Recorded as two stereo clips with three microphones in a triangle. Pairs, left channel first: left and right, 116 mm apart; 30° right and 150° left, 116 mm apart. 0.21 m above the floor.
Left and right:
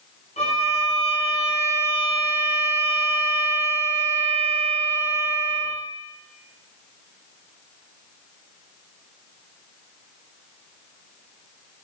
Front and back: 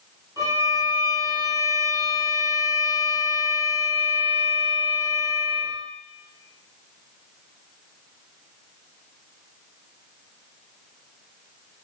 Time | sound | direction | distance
0.4 | a violin | 90° left | 2 m